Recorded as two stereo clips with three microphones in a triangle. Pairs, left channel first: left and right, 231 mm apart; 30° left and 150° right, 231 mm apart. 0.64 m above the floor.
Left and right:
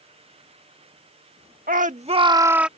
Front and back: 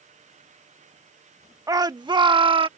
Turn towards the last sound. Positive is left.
turn(degrees=-170)